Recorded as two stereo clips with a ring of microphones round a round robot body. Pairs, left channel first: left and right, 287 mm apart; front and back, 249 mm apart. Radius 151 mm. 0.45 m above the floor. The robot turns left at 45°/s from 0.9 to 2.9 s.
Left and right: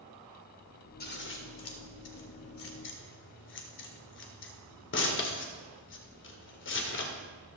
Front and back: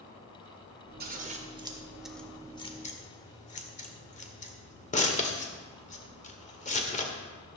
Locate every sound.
1.0 s scissors: 140° left, 1.8 m; by 7.2 s 55° left, 1.8 m